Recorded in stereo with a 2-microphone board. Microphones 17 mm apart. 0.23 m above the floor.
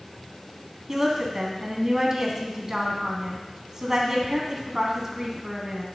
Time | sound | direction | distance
0.9 | a woman speaking | 30° right (ahead or behind) | 1.6 m